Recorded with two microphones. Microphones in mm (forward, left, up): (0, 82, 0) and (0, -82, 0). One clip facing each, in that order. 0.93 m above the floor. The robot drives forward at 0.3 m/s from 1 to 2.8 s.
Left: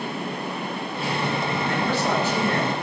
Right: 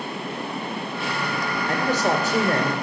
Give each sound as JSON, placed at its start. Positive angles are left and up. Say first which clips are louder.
{"t": 1.7, "sound": "a man speaking", "louder": "right 3 dB", "side_deg": -40, "distance_m": 3.0}